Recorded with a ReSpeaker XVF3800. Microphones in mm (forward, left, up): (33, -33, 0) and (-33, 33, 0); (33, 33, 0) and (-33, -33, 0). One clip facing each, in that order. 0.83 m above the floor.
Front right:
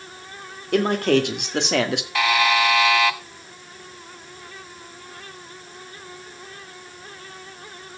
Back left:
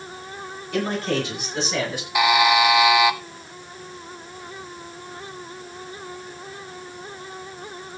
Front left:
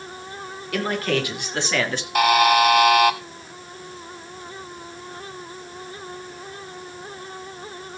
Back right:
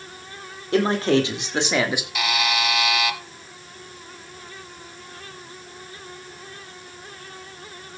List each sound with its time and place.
0.7 s a man speaking: 75° right, 2.5 m; by 2.0 s 55° right, 1.5 m
2.1 s a buzzer: 65° left, 0.9 m